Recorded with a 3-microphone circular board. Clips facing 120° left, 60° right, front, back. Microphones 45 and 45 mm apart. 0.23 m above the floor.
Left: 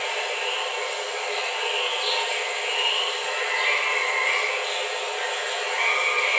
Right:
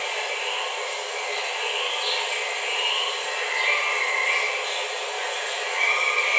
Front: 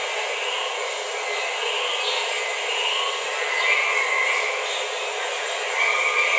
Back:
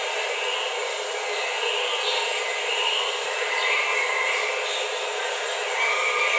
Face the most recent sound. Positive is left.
turn(degrees=45)